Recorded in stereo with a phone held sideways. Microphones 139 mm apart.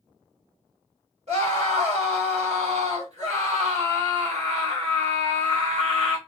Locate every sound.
1.3 s a scream: 55° right (ahead or behind), 2 m